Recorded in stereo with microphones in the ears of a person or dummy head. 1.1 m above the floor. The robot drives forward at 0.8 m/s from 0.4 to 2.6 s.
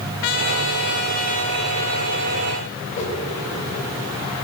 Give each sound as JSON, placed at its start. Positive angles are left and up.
{"t": 0.2, "sound": "a trumpet", "side_deg": 50, "distance_m": 0.7}
{"t": 2.9, "sound": "a whoosh", "side_deg": 35, "distance_m": 3.0}